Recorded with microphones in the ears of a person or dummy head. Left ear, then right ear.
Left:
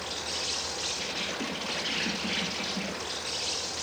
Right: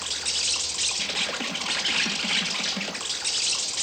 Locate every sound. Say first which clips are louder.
0.0 s an insect: right 6 dB; 45° right (ahead or behind), 1.6 m